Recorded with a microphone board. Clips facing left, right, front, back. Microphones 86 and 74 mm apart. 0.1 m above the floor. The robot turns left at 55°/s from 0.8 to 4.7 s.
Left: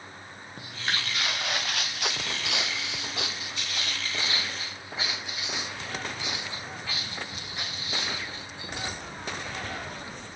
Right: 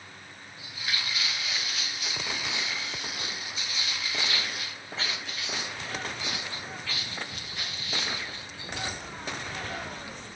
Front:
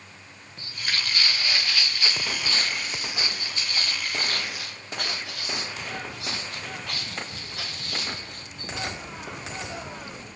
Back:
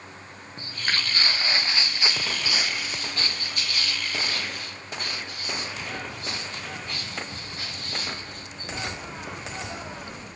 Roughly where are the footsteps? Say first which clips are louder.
Left 3 dB, back 2 dB; behind left.